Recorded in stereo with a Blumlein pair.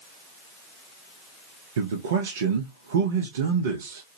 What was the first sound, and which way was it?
A man speaking, 60° right.